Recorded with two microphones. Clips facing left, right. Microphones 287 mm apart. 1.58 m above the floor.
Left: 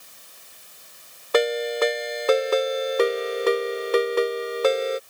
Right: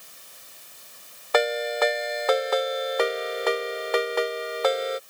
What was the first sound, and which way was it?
A ringtone, 35° left (ahead or behind).